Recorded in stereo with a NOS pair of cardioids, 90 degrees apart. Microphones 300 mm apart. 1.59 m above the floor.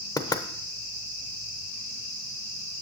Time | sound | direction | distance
0.2 | knocking | 15° left | 0.9 m